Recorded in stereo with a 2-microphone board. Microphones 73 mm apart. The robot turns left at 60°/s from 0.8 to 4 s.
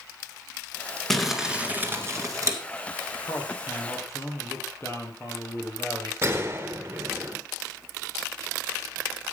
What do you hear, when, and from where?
1.1 s crumpling: 5° left, 2 m; by 2.6 s 85° right, 2 m
3.2 s a man speaking: 85° left, 3.5 m; by 6.1 s 40° left, 3.5 m
6.2 s a gunshot: 30° right (ahead or behind), 1.8 m